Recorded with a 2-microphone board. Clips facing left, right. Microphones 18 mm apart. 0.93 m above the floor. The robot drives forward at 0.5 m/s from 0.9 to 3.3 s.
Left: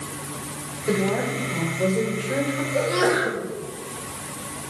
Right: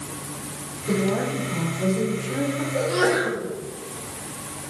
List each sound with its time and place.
0.9 s a woman speaking: 75° left (ahead or behind), 3.5 m
2.7 s a sneeze: 15° left (ahead or behind), 2.5 m